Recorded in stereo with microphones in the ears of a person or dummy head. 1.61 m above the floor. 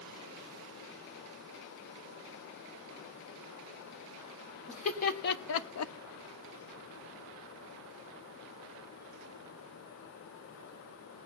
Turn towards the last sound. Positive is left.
turn(degrees=55)  # may be behind; listen again after turning